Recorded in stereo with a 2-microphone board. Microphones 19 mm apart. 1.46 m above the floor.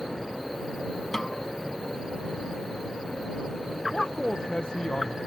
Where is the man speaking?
45° left (ahead or behind).